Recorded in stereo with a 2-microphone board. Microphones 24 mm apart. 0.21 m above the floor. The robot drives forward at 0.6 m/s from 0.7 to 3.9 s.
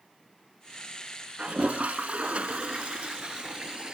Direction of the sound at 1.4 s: 60° right (ahead or behind).